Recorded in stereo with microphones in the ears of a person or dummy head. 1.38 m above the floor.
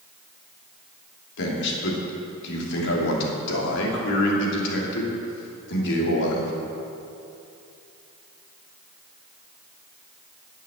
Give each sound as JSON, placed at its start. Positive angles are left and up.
{"t": 1.4, "sound": "a man speaking", "side_deg": 70, "distance_m": 2.5}